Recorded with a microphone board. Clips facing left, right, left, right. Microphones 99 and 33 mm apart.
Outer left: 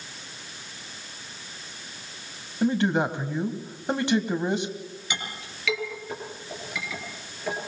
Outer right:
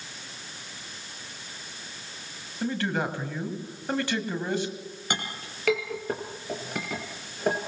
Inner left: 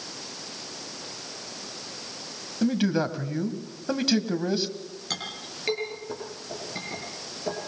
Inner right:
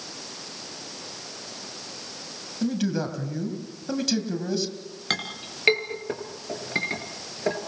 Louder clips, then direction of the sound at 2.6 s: Outer left 5 dB, inner left 2 dB; 20° left (ahead or behind).